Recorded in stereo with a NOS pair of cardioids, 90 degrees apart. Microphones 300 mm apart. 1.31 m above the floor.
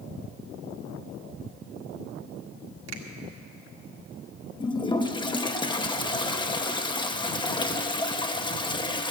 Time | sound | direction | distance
2.9 | a finger snap | 55° right | 1.8 m
4.6 | a toilet flushing | 15° left | 0.9 m